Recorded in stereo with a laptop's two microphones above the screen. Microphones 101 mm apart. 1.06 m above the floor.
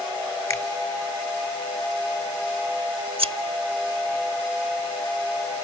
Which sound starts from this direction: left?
A finger snap, at 0.5 s.